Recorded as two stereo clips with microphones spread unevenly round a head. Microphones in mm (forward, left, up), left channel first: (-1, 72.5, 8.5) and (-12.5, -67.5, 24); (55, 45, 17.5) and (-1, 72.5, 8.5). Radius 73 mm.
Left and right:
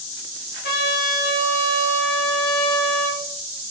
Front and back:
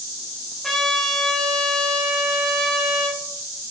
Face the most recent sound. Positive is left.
turn(degrees=55)